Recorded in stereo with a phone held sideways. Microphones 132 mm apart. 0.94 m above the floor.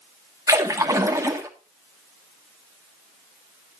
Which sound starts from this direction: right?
A splash, at 0.5 s.